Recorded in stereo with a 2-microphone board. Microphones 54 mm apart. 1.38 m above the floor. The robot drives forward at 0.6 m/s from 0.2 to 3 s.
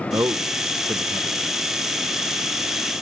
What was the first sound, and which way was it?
A man speaking, 80° right.